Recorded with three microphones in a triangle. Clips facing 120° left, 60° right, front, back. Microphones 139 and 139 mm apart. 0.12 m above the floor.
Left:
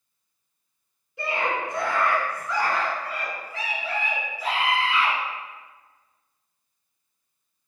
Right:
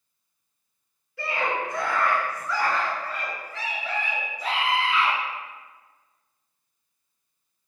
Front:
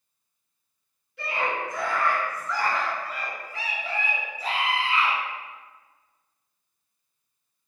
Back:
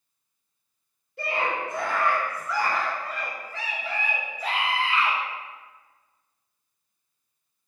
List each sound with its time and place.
1.2 s a scream: 175° left, 1.4 m; by 5.2 s 30° left, 1.6 m